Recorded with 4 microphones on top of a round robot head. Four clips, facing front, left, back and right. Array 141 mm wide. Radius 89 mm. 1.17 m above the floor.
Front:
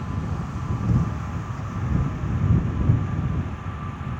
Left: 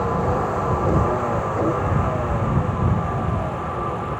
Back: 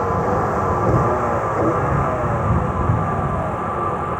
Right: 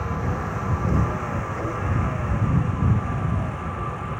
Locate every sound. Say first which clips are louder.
0.0 s a vehicle: left 7 dB, back 14 dB; 150° left; by 4.2 s 160° left